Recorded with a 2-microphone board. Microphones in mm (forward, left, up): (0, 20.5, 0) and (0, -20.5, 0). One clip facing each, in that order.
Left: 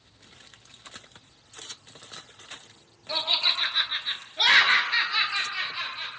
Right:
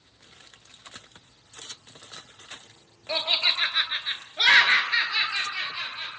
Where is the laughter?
35° right (ahead or behind), 1.6 m; by 6.1 s centre (ahead or behind), 2 m.